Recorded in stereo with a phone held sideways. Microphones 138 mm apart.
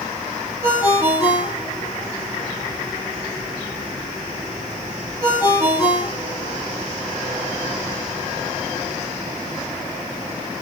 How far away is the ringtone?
About 8 m.